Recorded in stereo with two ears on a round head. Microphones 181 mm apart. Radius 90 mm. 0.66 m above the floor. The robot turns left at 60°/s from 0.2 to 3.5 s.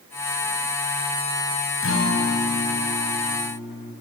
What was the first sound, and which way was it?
A guitar, 80° left.